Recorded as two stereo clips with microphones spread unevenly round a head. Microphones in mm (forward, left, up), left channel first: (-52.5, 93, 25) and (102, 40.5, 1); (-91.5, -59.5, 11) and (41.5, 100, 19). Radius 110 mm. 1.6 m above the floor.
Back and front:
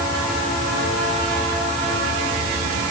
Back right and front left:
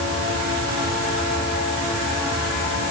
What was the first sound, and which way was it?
Only background noise.